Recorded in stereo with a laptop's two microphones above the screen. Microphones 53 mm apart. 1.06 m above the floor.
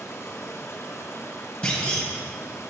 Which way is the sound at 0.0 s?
55° left (ahead or behind).